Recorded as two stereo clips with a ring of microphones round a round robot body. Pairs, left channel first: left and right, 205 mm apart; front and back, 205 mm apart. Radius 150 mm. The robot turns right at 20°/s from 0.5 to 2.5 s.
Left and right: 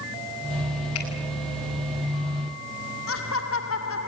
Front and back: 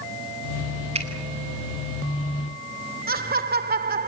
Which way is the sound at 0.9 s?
120° left.